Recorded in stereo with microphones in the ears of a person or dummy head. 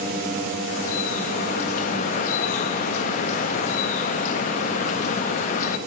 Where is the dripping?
50° left (ahead or behind), 0.6 m.